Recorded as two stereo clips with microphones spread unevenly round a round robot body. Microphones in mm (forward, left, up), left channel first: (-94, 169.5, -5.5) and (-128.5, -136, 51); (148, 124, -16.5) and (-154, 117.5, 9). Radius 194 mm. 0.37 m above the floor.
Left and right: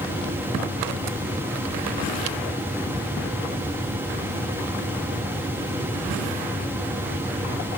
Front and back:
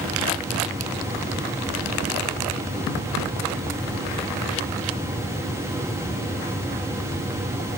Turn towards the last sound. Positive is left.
No sound to turn to.